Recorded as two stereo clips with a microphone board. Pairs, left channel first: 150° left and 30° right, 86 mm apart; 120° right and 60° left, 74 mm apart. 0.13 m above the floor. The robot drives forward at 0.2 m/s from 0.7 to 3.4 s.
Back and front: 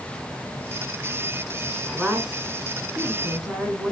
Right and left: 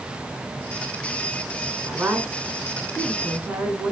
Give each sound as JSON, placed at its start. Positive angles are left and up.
{"t": 1.9, "sound": "a woman speaking", "azimuth_deg": 40, "distance_m": 1.6}